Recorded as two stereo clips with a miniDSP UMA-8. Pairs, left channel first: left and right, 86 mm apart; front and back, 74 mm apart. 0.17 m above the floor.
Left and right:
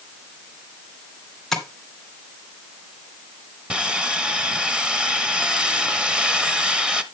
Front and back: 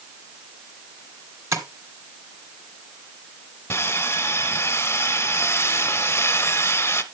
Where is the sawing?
20° right, 1.2 m.